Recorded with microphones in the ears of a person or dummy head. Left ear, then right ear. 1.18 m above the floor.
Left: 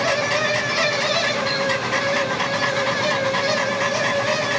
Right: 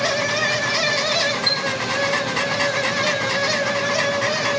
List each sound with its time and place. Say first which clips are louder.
0.0 s a fan: even; 5° right (ahead or behind), 2 m
1.5 s a chime: right 2 dB; 80° right, 4.5 m